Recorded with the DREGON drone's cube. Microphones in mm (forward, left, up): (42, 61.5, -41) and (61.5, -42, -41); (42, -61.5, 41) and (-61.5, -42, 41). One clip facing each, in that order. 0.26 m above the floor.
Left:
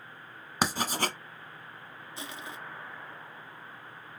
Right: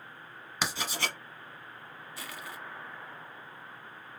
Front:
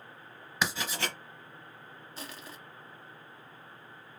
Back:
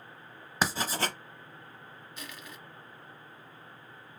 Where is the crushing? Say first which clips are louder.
Left 2 dB, front 2 dB; 40° left, 0.6 m.